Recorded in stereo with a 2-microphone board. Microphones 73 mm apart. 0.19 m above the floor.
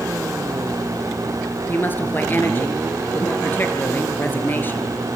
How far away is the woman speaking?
About 3.5 m.